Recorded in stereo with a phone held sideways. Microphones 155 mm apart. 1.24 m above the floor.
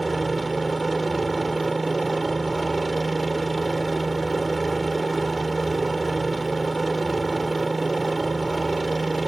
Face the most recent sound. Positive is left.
turn(degrees=0)  # may be behind; listen again after turning